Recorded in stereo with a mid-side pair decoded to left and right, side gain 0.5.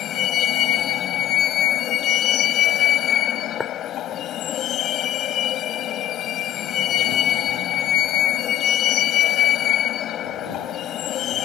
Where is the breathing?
I don't hear breathing.